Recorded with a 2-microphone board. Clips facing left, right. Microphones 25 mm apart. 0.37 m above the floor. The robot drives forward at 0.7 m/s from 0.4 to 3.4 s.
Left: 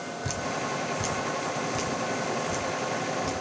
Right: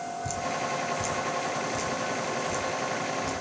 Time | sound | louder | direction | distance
0.2 | dripping | even | 40° left (ahead or behind) | 1.5 m